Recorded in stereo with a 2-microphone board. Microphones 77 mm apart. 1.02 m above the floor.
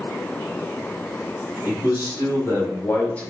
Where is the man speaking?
50° left (ahead or behind), 1.5 m; by 3.3 s 15° left (ahead or behind), 0.7 m.